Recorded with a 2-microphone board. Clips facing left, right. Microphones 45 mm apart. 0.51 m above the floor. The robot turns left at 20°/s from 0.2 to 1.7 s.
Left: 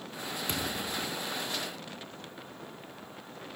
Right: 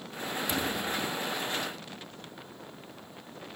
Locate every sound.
0.5 s a thud: 45° left (ahead or behind); by 1.2 s 30° left (ahead or behind)